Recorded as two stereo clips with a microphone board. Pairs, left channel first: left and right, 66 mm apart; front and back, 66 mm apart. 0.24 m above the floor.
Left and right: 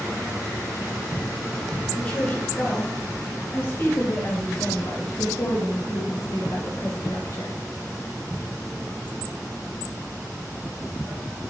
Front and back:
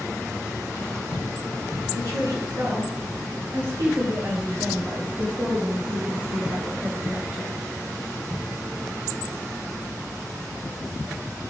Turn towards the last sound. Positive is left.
turn(degrees=100)